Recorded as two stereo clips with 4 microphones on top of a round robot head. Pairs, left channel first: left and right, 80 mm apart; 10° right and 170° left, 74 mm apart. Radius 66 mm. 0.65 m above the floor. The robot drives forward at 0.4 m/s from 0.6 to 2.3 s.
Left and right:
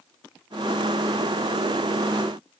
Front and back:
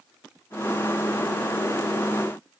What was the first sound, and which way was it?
Only background noise.